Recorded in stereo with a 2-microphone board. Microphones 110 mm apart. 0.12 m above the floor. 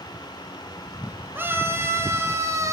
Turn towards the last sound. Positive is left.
turn(degrees=-30)  # may be behind; listen again after turning